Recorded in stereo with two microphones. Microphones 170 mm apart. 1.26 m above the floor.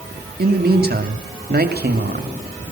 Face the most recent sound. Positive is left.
turn(degrees=-70)  # may be behind; listen again after turning